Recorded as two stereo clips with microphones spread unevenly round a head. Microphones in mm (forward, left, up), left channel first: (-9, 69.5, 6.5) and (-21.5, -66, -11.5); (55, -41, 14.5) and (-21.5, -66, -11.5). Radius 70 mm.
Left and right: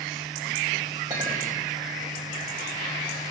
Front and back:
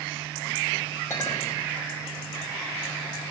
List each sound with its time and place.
1.1 s a clink: 25° right, 5.5 m